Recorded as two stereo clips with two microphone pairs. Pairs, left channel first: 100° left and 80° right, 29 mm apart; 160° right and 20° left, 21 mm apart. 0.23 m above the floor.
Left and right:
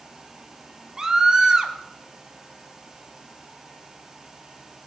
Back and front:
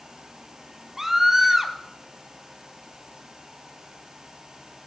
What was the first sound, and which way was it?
A scream, 30° right.